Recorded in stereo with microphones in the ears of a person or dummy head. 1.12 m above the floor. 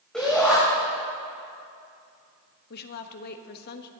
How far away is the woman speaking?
About 1.2 m.